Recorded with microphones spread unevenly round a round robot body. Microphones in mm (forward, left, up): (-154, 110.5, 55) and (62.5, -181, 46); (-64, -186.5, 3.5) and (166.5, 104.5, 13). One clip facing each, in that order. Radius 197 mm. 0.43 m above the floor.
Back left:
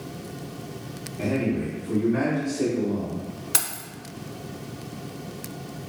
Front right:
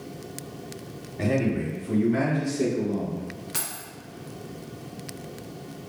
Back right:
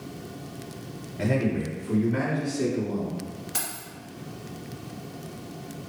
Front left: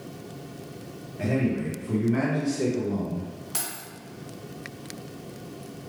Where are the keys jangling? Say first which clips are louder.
Back left 2 dB, even; 135° left, 1.3 m.